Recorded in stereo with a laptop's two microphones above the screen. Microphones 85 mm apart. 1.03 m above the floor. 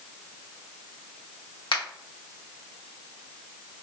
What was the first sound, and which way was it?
A finger snap, 75° left (ahead or behind).